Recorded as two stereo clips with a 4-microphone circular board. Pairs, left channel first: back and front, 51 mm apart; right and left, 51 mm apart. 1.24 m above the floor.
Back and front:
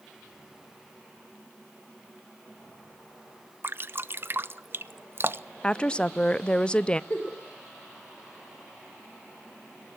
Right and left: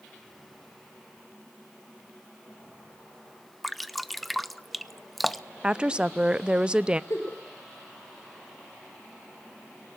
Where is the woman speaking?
140° left, 0.5 m.